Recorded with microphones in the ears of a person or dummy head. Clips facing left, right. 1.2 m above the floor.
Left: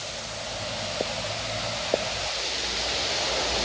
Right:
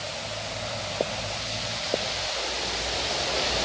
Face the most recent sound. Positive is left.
No sound to turn to.